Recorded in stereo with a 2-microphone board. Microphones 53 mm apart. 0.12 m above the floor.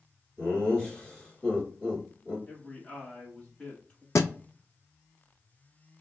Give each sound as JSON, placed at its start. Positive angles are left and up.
{"t": 0.4, "sound": "laughter", "side_deg": 20, "distance_m": 2.0}
{"t": 2.5, "sound": "a man speaking", "side_deg": 20, "distance_m": 1.1}
{"t": 4.2, "sound": "a thud", "side_deg": 75, "distance_m": 0.5}